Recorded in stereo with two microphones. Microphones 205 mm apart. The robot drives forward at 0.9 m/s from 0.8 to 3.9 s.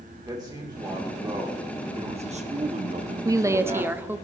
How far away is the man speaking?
About 2.5 m.